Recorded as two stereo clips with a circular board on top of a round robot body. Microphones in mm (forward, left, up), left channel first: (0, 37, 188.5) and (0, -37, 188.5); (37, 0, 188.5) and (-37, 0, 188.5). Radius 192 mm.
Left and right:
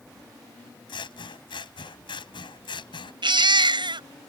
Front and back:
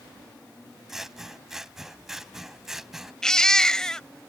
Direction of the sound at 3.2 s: 80° right.